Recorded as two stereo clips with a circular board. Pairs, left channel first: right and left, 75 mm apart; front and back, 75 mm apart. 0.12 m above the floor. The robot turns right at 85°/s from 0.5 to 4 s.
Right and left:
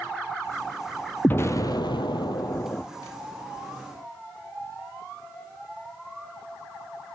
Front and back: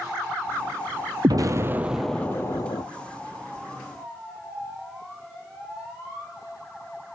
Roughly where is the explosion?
Behind.